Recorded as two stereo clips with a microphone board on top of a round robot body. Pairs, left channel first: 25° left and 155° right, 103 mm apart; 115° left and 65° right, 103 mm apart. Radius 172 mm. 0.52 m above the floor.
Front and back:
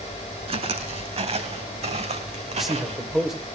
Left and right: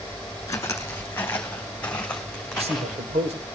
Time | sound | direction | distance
0.5 | footsteps | 175° left | 2 m
2.5 | a man speaking | 70° right | 3 m